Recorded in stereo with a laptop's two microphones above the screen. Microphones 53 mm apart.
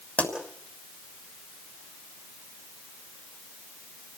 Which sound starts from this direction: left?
A pop, at 0.2 s.